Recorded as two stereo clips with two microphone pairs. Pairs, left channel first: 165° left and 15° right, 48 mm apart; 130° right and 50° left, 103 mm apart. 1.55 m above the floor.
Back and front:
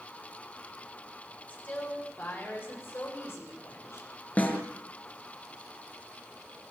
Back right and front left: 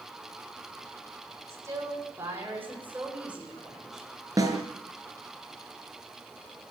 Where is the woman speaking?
110° left, 8 m; by 4.1 s 140° left, 9 m.